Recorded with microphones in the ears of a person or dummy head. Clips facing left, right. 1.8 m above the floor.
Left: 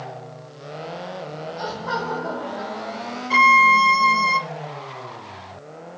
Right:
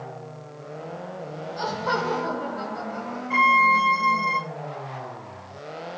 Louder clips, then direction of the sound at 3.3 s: Left 4 dB; 55° left (ahead or behind).